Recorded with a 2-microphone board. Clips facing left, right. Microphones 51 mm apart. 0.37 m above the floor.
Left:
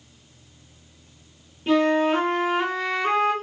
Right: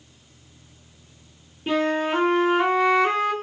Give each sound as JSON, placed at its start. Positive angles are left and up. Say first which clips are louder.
{"t": 1.7, "sound": "a flute", "louder": "left 3 dB", "side_deg": -5, "distance_m": 1.2}